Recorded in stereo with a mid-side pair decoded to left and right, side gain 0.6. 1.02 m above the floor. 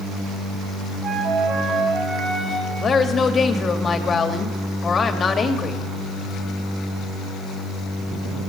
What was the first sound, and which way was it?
A flute, 40° right.